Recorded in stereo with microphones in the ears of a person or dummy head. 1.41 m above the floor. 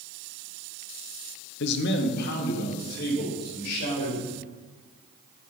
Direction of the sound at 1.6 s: 65° left (ahead or behind).